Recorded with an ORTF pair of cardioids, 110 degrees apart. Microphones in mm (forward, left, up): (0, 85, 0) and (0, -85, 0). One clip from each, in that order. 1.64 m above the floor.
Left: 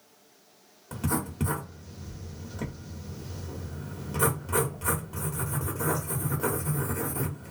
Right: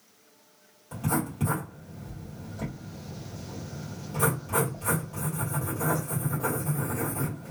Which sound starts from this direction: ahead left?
Writing, at 0.9 s.